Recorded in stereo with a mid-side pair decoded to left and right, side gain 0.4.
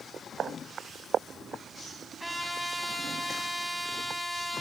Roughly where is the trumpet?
Ahead.